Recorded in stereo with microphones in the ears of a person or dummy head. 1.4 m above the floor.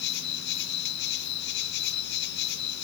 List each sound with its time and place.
0.0 s an insect: 65° left (ahead or behind), 1.5 m